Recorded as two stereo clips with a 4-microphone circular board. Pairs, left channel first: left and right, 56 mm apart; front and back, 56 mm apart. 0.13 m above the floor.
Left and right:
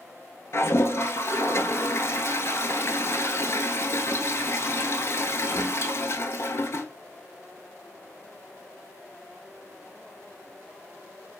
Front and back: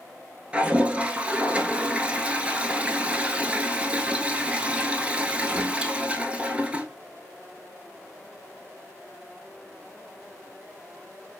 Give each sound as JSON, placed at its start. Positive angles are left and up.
{"t": 0.5, "sound": "a toilet flushing", "azimuth_deg": 115, "distance_m": 0.7}